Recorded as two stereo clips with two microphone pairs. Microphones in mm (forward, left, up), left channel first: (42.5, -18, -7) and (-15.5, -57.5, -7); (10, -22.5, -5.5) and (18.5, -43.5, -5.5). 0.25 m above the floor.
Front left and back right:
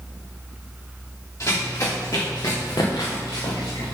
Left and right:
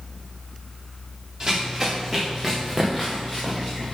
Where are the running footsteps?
5° right, 2.5 m; by 4.0 s 40° left, 2 m.